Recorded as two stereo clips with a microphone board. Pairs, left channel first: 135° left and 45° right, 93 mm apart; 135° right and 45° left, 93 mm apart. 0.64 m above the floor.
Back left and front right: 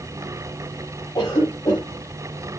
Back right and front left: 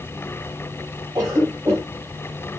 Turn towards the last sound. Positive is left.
turn(degrees=95)